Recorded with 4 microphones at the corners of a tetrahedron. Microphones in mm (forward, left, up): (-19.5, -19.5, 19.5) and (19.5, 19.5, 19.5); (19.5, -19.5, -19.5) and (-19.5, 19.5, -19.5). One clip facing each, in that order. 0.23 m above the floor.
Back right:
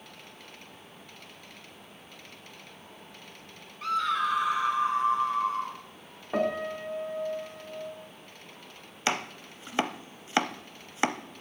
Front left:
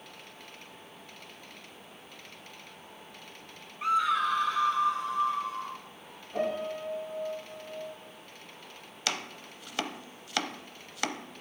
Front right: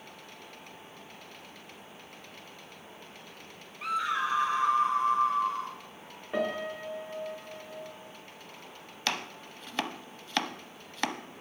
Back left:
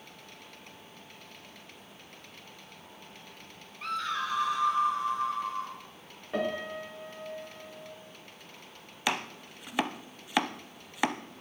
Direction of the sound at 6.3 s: 125° right.